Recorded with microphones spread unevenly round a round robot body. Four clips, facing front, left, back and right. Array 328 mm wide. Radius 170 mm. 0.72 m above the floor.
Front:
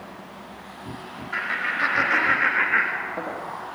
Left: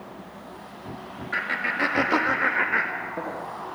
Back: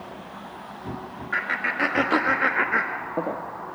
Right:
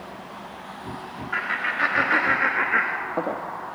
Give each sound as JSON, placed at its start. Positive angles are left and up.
{"t": 1.3, "sound": "laughter", "azimuth_deg": 125, "distance_m": 1.9}